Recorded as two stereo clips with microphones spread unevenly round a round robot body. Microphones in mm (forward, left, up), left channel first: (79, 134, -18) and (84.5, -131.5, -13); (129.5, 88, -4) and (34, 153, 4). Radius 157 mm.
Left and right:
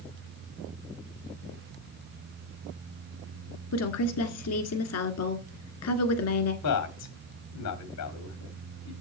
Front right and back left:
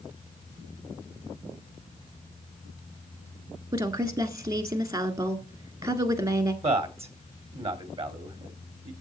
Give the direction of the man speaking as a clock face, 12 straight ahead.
8 o'clock.